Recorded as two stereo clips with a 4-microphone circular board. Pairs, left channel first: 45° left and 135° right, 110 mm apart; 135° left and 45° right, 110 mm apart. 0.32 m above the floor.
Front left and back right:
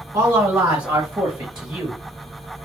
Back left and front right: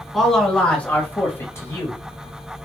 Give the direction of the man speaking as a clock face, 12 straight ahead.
5 o'clock.